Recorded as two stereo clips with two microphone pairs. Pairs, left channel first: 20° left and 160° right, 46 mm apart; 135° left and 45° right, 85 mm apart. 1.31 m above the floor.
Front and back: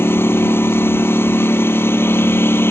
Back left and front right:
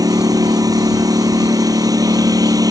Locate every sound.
0.0 s a lawn mower: 5° right